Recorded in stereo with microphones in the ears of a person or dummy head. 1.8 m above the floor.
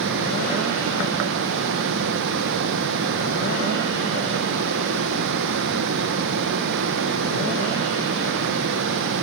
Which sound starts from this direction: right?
Running water, at 0.0 s.